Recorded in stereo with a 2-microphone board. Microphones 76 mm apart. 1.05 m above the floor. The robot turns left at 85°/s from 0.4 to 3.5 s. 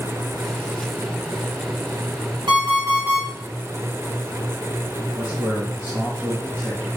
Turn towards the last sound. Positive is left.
turn(degrees=-20)  # may be behind; listen again after turning